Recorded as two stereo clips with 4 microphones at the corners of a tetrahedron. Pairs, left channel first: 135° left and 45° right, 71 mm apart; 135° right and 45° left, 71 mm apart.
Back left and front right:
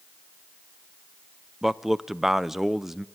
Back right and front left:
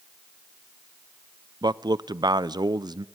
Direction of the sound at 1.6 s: 40° left.